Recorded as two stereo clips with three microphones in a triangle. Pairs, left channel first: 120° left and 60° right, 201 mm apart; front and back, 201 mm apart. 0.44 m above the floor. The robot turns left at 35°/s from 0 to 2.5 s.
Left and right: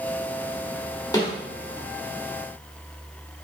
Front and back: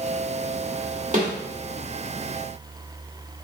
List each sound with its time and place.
1.1 s a snare drum: straight behind, 1.6 m; by 1.3 s 175° left, 1.6 m